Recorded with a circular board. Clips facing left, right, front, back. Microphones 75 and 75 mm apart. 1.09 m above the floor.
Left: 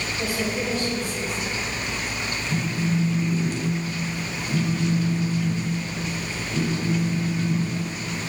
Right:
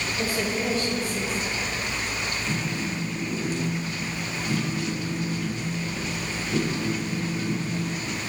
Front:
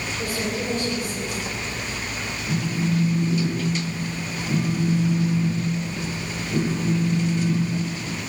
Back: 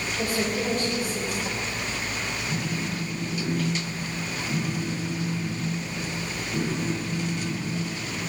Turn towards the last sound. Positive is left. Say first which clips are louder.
# left 7 dB, front 9 dB
turn(degrees=-50)